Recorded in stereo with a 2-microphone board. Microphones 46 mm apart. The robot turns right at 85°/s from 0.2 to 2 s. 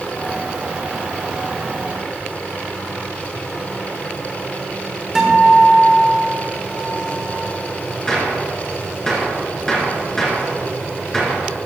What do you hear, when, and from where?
5.2 s a guitar: 15° right (ahead or behind), 1.4 m
8.1 s a gunshot: 10° left (ahead or behind), 2 m